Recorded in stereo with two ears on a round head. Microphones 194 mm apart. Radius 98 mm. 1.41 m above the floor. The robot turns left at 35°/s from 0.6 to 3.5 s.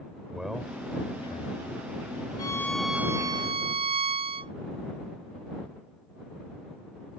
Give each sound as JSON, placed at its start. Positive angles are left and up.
{"t": 0.3, "sound": "a man speaking", "azimuth_deg": -175}
{"t": 2.4, "sound": "a violin", "azimuth_deg": 15}